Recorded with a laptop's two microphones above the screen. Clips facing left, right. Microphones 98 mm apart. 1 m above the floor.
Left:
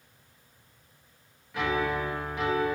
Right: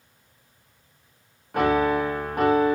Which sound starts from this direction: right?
A piano, at 1.5 s.